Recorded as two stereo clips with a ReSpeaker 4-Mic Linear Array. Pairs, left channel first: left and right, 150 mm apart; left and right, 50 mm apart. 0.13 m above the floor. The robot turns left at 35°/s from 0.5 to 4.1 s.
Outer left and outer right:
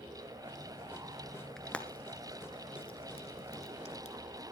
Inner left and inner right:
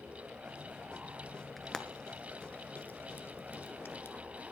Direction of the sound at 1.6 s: 5° left (ahead or behind).